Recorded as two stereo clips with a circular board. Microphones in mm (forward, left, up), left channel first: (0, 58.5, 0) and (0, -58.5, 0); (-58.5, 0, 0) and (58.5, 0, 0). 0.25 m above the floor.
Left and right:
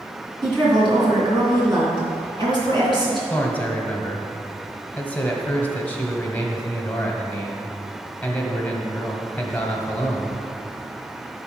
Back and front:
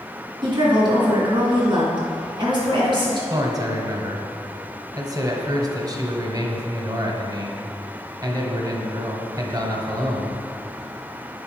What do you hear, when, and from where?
0.4 s a woman speaking: 45° right, 3 m
3.3 s a man speaking: 25° left, 1.1 m